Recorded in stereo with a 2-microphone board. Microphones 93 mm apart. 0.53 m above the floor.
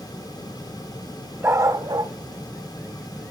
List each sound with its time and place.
1.4 s a dog barking: 25° right (ahead or behind), 1.1 m; by 3.3 s 85° right, 2.5 m